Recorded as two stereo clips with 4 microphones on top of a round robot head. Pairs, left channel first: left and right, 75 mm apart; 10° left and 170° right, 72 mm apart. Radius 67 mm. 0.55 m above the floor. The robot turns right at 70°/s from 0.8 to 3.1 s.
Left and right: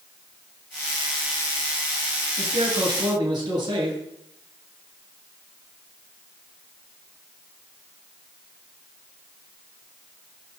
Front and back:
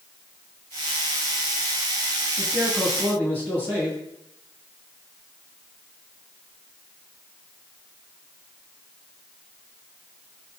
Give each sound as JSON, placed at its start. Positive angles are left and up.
{"t": 2.4, "sound": "a man speaking", "azimuth_deg": -115, "distance_m": 9.0}